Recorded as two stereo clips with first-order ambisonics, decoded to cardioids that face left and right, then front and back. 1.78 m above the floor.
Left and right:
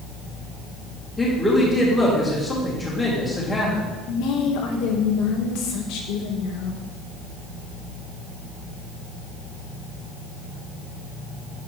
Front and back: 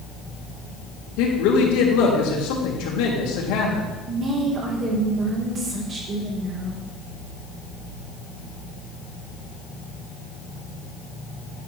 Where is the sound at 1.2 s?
10° left, 2.5 m.